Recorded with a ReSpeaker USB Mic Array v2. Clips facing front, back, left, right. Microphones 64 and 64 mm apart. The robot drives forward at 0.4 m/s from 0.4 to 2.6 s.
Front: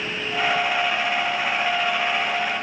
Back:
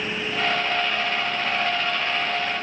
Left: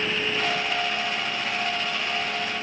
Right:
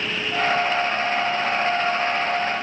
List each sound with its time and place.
Only background noise.